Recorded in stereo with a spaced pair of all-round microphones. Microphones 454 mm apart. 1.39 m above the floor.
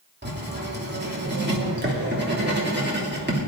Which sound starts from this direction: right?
Writing, at 0.2 s.